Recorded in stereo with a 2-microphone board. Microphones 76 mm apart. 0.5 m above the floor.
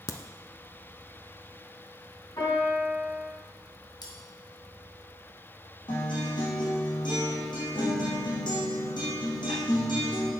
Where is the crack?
55° left (ahead or behind), 0.8 m.